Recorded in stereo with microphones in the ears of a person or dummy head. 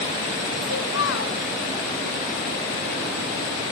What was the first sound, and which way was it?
A child speaking, 75° left (ahead or behind).